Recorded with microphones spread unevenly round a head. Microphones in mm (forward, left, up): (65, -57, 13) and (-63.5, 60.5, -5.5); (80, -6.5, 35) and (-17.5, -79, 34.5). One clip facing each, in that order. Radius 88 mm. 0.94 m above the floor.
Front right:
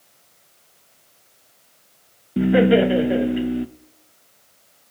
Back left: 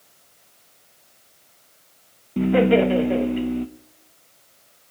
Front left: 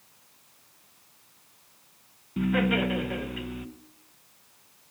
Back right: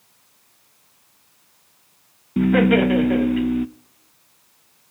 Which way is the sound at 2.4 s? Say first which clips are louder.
Front right 2 dB, back right 10 dB; 125° right.